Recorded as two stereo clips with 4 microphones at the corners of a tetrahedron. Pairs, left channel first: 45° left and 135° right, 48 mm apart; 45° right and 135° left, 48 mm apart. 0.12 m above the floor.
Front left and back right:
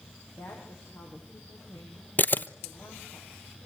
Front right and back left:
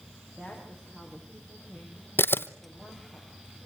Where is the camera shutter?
5° right, 0.9 m.